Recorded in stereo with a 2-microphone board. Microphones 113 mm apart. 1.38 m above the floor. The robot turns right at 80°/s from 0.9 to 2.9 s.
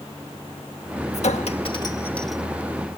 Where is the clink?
80° left; by 2.4 s 5° right (ahead or behind).